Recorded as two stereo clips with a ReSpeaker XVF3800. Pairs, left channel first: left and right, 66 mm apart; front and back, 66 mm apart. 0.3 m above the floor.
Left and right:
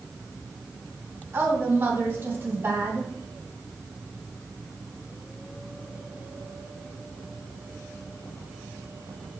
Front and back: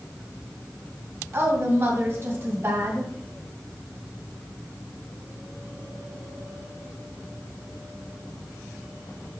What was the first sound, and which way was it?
A woman speaking, 135° right.